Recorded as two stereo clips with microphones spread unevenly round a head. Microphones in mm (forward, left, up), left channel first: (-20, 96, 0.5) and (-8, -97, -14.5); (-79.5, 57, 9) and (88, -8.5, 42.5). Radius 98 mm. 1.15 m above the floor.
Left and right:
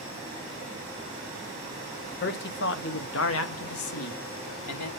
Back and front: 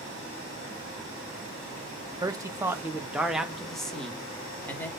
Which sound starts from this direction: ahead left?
A man speaking, at 2.2 s.